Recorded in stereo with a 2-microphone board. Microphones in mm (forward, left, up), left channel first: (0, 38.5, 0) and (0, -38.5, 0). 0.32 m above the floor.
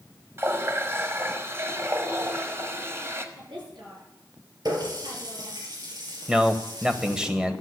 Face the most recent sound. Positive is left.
turn(degrees=-10)  # may be behind; listen again after turning